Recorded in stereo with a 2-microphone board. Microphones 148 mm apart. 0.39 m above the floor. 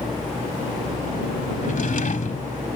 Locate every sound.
1.6 s a drawer: 65° left (ahead or behind)